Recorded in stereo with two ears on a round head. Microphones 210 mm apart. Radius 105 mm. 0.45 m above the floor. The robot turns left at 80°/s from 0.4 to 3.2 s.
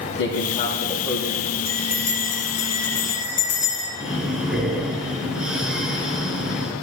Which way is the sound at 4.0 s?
5° right (ahead or behind).